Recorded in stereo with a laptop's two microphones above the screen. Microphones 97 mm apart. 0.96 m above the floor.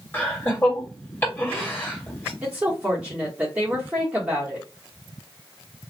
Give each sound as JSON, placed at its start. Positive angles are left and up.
{"t": 0.1, "sound": "laughter", "side_deg": 25, "distance_m": 2.0}
{"t": 2.4, "sound": "a woman speaking", "side_deg": -10, "distance_m": 1.2}